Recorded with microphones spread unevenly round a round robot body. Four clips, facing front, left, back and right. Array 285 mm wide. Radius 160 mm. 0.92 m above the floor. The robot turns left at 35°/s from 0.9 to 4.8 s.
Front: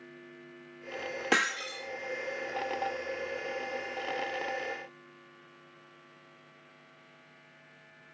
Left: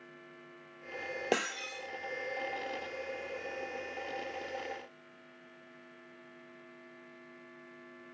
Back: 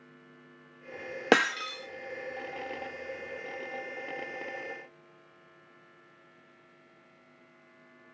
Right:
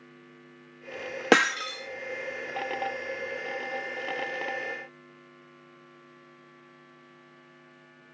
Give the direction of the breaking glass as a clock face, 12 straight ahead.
4 o'clock.